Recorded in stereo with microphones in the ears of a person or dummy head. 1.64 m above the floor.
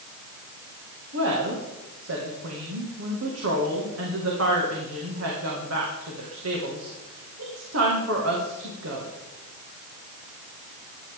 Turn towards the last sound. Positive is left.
turn(degrees=-80)